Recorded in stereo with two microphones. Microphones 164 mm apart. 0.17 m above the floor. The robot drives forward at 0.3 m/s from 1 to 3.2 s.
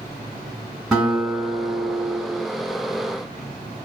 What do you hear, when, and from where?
0.9 s a guitar: 5° right (ahead or behind), 1.3 m